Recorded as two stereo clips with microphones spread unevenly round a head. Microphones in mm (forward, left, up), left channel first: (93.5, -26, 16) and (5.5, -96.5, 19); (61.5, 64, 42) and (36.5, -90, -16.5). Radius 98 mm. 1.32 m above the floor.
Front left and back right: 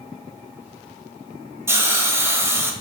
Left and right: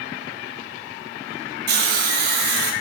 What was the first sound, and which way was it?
A hiss, 80° right.